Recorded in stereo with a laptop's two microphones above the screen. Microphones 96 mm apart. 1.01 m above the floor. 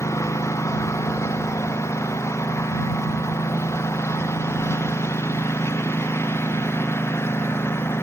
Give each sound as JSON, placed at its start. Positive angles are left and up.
{"t": 0.0, "sound": "a lawn mower", "side_deg": 35}